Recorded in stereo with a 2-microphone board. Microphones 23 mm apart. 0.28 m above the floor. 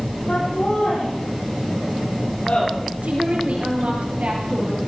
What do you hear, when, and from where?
0.3 s laughter: 65° left (ahead or behind), 8.5 m; by 2.7 s 60° left (ahead or behind), 9.5 m
3.0 s a woman speaking: 75° right (ahead or behind), 7 m